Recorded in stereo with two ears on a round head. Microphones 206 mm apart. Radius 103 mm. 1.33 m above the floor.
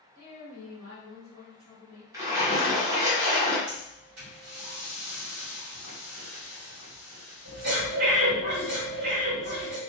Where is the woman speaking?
75° right (ahead or behind), 1.9 m; by 2.0 s 30° right (ahead or behind), 1.6 m.